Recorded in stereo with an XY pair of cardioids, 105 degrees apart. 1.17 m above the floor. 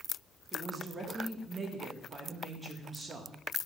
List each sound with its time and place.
0.5 s a woman speaking: 30° right, 1.5 m